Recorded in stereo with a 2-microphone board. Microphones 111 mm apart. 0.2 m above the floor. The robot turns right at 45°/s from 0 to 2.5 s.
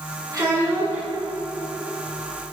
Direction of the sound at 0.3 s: 45° right.